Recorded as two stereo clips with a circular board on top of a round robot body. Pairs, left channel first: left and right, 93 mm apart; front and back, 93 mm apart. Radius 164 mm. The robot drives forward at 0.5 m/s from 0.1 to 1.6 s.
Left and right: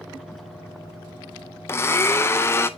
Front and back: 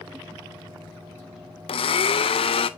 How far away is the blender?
About 0.6 m.